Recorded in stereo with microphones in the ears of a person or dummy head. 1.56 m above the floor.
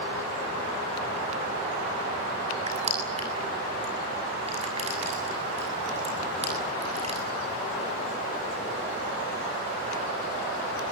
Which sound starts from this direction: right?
Crushing, at 2.7 s.